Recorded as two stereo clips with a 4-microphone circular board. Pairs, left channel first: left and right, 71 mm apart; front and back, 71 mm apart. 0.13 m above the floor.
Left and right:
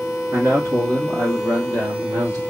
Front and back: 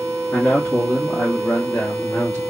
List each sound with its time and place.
0.3 s a man speaking: 55° right, 1.4 m; by 2.4 s 60° right, 3 m